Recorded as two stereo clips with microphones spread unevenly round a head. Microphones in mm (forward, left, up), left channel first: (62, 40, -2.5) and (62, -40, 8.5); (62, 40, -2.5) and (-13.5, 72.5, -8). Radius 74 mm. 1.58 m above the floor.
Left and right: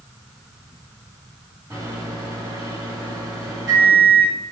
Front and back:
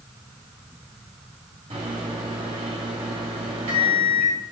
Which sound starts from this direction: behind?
A microwave, at 1.7 s.